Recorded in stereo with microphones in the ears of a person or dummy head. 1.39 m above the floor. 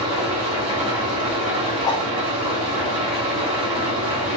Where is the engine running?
30° right (ahead or behind), 1.4 m.